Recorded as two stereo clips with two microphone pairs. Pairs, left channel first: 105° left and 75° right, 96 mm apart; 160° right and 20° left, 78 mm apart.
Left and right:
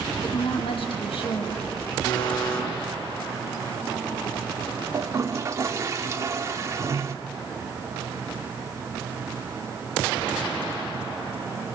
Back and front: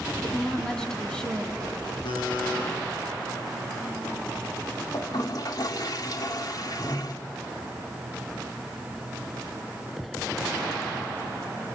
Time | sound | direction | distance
0.2 | a woman speaking | 115° left | 4 m
2.0 | a buzzer | straight behind | 9.5 m
4.9 | a toilet flushing | 135° right | 2.0 m